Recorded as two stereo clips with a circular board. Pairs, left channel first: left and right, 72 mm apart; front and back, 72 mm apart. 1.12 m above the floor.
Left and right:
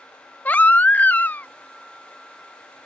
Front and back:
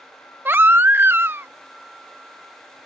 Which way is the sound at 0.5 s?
140° left.